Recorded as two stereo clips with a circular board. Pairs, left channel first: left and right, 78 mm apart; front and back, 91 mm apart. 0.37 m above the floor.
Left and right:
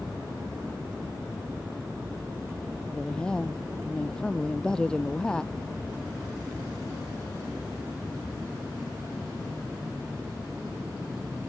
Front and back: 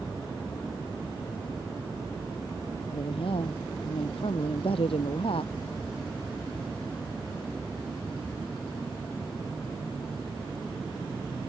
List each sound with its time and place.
2.9 s a woman speaking: 10° left